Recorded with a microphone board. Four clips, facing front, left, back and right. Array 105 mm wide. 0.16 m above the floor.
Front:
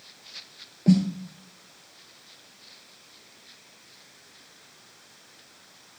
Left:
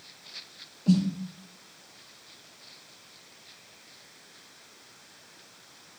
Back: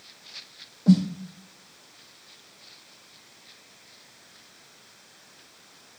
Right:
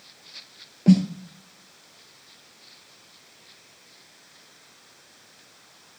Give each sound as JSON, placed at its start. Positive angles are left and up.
{"t": 0.9, "sound": "a snare drum", "azimuth_deg": -70, "distance_m": 1.6}